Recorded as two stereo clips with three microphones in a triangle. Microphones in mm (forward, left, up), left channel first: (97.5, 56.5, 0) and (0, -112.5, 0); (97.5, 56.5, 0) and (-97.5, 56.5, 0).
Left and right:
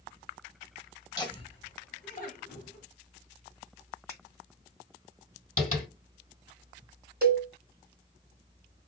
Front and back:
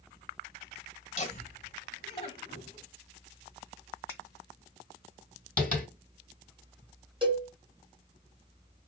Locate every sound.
1.2 s laughter: 5° left, 1.1 m; by 2.8 s 60° left, 1.6 m
4.1 s a finger snap: 75° left, 1.8 m
5.6 s tapping: 80° left, 2 m
7.2 s a cowbell: 125° right, 1.2 m